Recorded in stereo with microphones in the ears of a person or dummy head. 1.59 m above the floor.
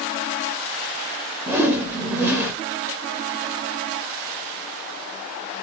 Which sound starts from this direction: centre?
A whoosh, at 1.5 s.